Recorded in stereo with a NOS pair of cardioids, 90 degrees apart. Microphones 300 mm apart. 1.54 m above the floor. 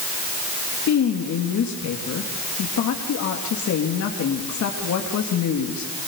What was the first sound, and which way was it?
A woman speaking, 60° left.